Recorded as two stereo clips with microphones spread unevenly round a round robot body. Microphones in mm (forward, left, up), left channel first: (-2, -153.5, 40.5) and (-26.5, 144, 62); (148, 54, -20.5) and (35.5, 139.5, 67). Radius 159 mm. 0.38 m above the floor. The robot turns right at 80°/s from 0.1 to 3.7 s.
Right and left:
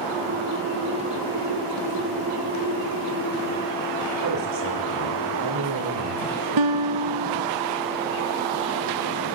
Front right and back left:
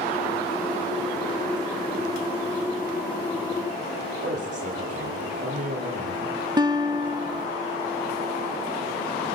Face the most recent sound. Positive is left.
turn(degrees=75)